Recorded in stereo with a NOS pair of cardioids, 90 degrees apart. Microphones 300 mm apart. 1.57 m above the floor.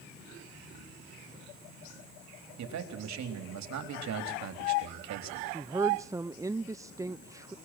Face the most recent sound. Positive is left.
turn(degrees=-10)